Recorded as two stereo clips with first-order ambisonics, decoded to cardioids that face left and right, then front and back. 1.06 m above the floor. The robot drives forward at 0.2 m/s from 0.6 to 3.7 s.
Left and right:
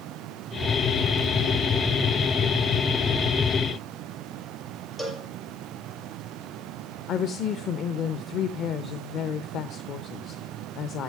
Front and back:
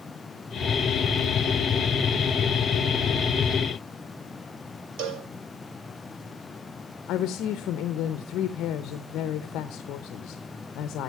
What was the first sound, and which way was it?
A cowbell, 170° left.